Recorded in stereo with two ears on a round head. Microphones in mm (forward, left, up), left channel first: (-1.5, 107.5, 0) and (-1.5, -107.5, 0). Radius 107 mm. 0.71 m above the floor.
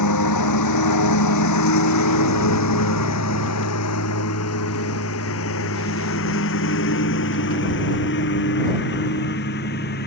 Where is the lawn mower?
85° left; by 10.1 s 40° left (ahead or behind).